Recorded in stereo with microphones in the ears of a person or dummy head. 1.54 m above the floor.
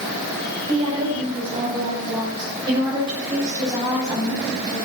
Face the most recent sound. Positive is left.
turn(degrees=-20)  # may be behind; listen again after turning